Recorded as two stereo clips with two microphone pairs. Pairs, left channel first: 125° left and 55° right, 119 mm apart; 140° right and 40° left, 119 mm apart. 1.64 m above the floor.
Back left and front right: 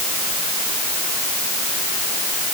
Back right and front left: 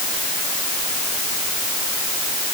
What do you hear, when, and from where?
Only background noise.